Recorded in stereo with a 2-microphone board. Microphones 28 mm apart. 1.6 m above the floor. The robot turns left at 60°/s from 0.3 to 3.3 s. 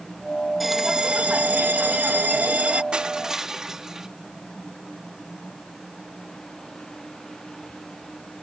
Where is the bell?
5° right; by 2.8 s 135° right.